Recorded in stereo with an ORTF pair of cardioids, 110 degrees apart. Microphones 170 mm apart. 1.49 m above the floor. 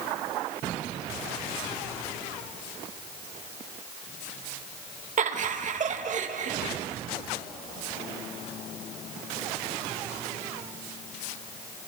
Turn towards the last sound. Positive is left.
turn(degrees=-45)